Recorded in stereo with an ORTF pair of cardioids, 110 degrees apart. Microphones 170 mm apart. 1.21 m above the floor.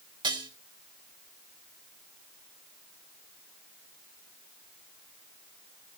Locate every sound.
0.2 s dishes clattering: 25° right, 3.5 m